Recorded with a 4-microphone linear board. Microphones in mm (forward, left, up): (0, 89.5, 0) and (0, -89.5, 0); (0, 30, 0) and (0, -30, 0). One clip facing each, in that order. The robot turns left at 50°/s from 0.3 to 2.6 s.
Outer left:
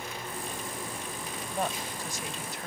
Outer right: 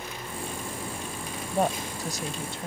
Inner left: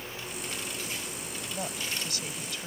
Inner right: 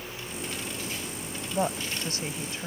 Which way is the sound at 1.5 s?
80° right.